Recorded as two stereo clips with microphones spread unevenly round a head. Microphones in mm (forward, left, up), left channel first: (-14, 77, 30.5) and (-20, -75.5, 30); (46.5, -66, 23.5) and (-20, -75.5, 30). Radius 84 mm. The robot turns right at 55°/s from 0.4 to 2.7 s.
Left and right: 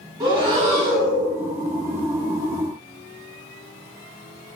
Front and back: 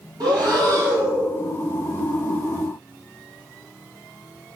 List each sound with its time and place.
0.2 s breathing: 150° right, 1.5 m; by 1.3 s 105° right, 1.5 m